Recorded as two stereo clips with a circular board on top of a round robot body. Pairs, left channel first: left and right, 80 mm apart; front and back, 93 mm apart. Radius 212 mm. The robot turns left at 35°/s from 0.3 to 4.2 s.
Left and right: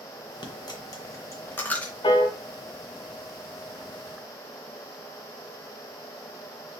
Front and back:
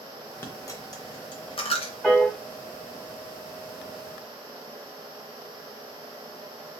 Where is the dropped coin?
65° left, 0.8 m; by 1.9 s 10° left, 0.8 m.